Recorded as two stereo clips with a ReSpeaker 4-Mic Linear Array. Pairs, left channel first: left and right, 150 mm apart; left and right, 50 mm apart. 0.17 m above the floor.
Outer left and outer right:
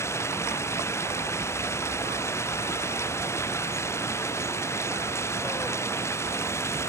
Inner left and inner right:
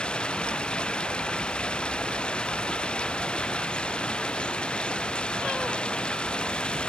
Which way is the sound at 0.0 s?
15° left (ahead or behind).